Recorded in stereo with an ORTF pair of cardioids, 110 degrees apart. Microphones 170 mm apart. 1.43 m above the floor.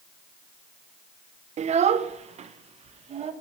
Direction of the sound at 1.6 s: 45° right.